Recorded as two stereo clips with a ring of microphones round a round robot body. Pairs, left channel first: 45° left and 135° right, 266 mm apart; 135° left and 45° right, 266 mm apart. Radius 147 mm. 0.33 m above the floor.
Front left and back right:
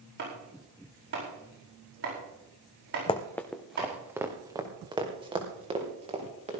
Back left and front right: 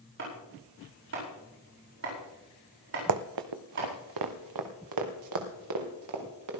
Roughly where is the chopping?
Right.